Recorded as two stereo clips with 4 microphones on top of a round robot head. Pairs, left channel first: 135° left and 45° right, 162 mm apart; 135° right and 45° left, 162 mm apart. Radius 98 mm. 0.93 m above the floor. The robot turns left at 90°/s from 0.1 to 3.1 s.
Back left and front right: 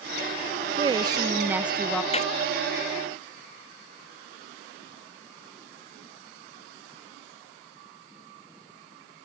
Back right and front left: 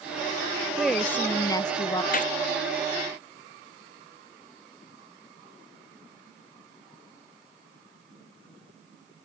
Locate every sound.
0.8 s a woman speaking: 40° right; by 2.0 s 150° right
2.1 s a gunshot: 170° right; by 2.3 s 175° left